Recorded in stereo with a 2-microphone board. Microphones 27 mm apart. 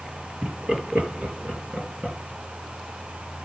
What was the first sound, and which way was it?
Laughter, 55° right (ahead or behind).